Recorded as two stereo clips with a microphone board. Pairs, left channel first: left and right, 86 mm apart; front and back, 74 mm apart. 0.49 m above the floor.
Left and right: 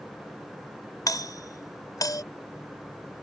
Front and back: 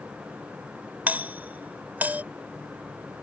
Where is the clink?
I don't hear a clink.